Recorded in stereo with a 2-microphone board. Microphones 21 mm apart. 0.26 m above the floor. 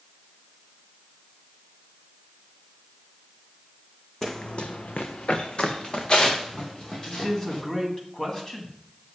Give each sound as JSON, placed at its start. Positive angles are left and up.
{"t": 4.2, "sound": "running footsteps", "side_deg": 20, "distance_m": 0.8}
{"t": 7.1, "sound": "a man speaking", "side_deg": 30, "distance_m": 2.0}